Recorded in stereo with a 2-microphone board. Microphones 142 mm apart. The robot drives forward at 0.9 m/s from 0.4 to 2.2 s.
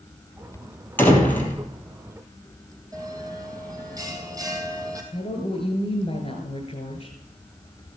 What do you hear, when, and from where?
1.0 s a door slam: 15° left (ahead or behind), 2.5 m; by 1.6 s 10° left (ahead or behind), 3 m
2.9 s a bell: 25° right (ahead or behind), 2 m
5.1 s a woman speaking: 40° left (ahead or behind), 1.8 m